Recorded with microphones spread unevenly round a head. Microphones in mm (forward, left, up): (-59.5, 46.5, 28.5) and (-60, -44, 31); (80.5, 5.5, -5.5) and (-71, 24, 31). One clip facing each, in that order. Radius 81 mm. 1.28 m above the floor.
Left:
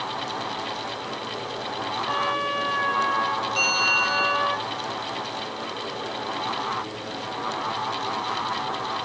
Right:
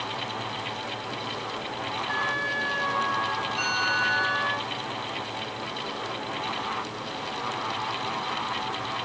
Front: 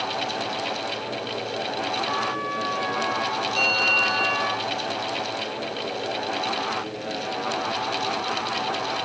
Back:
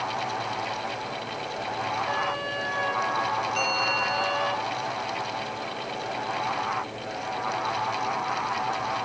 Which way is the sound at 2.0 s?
120° left.